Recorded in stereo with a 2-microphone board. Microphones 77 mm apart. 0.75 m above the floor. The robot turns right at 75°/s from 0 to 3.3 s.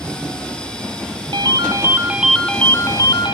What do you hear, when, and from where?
1.3 s a ringtone: 75° right, 0.8 m; by 3.4 s 70° left, 0.8 m